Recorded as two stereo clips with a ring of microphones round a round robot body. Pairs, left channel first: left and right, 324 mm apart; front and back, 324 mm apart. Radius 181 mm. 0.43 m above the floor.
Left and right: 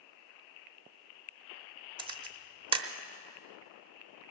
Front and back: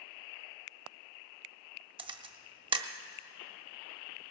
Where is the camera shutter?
135° right, 0.8 m.